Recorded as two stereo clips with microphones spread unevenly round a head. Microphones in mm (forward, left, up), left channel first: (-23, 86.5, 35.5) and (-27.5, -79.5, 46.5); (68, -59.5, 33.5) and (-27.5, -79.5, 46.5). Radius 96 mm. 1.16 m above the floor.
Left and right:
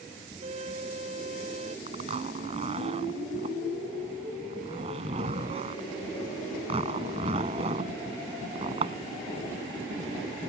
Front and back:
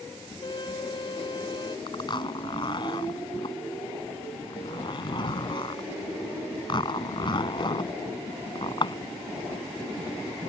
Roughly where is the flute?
Ahead right.